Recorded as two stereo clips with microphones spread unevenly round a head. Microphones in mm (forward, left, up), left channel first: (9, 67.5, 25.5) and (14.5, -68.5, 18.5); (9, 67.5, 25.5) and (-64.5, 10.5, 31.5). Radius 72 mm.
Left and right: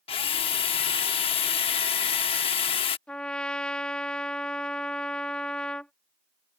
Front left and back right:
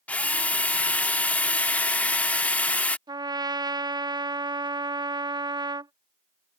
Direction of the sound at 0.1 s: 105° left.